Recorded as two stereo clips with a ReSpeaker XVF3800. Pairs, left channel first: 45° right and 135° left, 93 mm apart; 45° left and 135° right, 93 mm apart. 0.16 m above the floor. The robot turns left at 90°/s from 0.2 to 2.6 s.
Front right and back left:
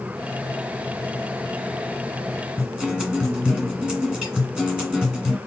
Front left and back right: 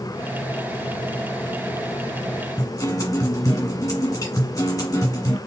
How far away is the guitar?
About 1.7 m.